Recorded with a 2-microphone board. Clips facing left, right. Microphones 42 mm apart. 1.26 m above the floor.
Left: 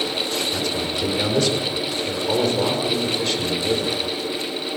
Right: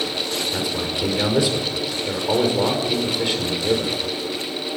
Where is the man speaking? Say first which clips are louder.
Even; 10° right (ahead or behind), 5.5 m.